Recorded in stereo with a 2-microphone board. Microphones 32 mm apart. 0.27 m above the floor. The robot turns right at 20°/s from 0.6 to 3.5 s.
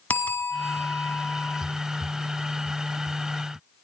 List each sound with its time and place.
0.1 s a bell: 60° left (ahead or behind), 1.5 m